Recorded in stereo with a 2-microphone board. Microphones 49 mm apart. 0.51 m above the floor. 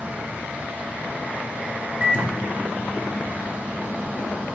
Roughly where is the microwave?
Right.